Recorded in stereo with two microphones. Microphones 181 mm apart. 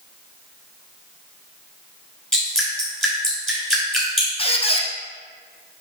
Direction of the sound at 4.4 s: 30° left (ahead or behind).